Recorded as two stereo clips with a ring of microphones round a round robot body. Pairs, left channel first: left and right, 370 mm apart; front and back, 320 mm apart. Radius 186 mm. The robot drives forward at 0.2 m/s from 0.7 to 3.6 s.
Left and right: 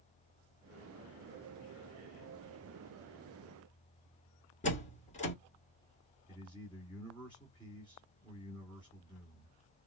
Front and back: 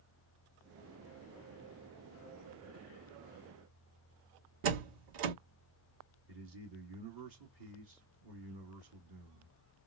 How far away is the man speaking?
About 2 m.